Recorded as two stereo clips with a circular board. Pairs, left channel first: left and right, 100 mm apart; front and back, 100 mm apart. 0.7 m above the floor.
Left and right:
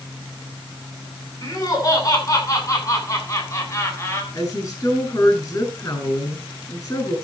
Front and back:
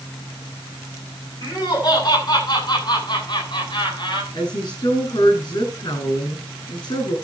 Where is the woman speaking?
40° left, 8.5 m.